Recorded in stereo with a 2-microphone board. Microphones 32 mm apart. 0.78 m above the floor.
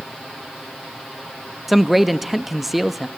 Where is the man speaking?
5° right (ahead or behind), 1.0 m.